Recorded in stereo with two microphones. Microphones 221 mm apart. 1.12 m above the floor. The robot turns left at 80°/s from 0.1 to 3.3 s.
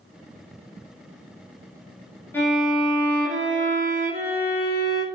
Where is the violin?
10° left, 1.9 m; by 5.0 s 65° right, 1.9 m.